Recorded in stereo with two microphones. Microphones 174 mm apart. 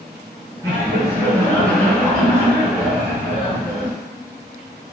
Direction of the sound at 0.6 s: 20° left (ahead or behind).